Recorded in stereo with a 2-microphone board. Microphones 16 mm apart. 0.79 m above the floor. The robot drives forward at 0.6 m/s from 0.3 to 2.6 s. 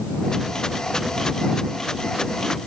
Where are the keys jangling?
No keys jangling in this recording.